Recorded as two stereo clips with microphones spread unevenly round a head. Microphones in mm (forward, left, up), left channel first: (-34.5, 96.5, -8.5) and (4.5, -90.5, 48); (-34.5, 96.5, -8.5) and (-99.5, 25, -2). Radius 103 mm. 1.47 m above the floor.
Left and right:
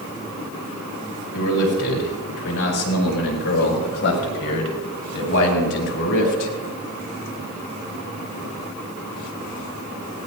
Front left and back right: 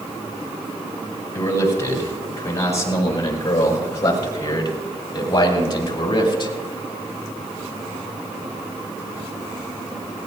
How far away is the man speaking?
About 9 m.